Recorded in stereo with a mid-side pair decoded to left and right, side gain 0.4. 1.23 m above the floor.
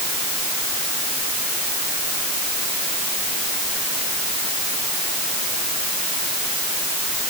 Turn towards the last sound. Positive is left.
No sound to turn to.